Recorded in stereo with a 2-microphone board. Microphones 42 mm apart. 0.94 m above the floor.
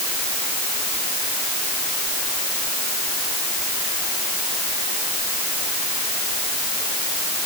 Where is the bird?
No bird in this recording.